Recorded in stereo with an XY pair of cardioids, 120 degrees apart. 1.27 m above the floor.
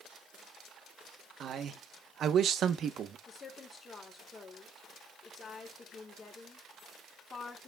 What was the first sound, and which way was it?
A man speaking, 50° right.